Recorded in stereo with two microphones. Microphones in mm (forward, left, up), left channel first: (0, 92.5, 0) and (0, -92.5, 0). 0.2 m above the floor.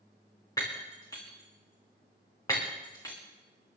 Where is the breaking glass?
20° left (ahead or behind), 3.5 m.